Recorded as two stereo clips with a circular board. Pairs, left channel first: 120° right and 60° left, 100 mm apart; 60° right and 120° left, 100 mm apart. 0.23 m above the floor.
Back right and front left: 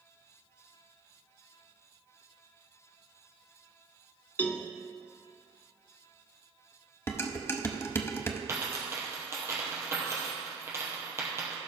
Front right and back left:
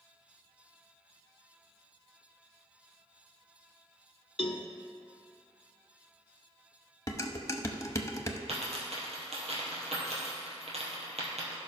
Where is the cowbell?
50° right, 0.6 m.